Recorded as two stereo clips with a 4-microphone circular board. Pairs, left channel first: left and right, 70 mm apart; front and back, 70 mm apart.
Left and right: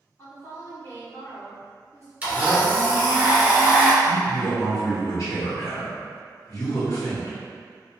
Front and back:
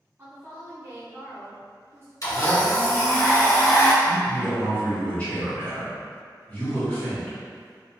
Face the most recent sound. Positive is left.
turn(degrees=70)